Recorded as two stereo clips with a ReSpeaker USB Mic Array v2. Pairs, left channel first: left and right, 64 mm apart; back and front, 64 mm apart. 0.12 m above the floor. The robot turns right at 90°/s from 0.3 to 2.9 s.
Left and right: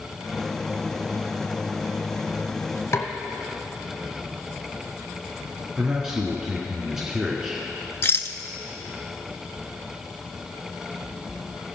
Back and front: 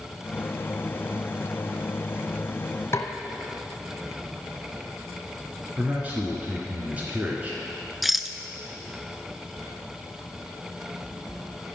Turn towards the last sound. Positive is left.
turn(degrees=85)